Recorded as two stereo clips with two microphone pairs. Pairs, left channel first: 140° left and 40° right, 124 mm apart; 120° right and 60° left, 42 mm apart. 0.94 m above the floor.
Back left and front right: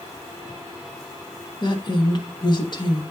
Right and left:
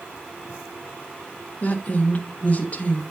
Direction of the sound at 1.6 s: 170° right.